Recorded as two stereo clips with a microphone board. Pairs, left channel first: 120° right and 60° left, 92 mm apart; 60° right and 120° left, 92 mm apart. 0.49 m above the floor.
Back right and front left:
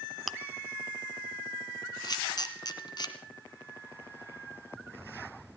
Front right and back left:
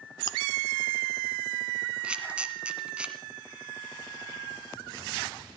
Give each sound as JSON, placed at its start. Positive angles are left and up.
{"t": 0.3, "sound": "chewing", "azimuth_deg": -25, "distance_m": 0.7}
{"t": 2.0, "sound": "a camera shutter", "azimuth_deg": -160, "distance_m": 1.9}